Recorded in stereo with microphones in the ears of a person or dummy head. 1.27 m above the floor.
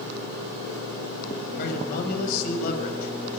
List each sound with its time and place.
1.6 s a man speaking: 55° left (ahead or behind), 6.5 m